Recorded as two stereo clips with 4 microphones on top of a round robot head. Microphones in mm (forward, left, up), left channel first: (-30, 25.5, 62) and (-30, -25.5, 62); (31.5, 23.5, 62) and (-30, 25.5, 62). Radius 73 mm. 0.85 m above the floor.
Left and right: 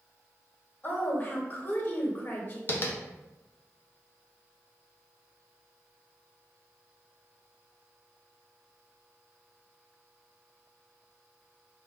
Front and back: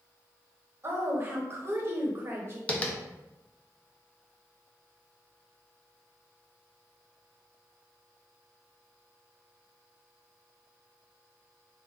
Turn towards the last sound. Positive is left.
turn(degrees=60)